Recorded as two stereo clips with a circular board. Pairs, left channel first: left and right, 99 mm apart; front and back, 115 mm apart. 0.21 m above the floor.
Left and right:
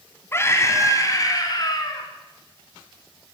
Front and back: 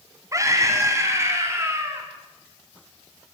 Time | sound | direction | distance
0.3 | a scream | 140° left | 1.8 m